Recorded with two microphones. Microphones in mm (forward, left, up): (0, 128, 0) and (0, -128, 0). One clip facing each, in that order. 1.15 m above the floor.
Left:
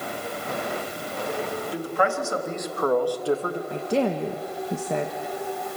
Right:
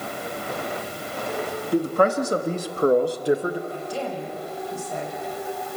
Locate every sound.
1.7 s a man speaking: 45° right (ahead or behind), 2 m; by 3.6 s 5° right (ahead or behind), 1.3 m
3.7 s a woman speaking: 70° left (ahead or behind), 1.3 m